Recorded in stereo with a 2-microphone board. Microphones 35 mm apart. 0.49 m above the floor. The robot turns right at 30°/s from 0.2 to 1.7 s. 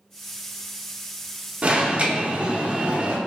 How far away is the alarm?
About 0.6 m.